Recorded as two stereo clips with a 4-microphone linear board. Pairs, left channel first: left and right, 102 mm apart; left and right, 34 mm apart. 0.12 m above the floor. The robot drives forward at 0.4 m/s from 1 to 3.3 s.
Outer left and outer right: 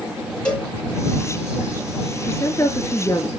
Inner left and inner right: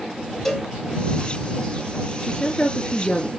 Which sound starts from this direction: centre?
A cowbell, at 0.5 s.